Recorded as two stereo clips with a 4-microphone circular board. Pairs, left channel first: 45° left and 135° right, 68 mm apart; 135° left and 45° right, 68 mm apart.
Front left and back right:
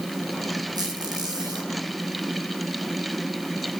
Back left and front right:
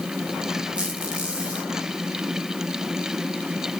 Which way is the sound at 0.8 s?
120° right.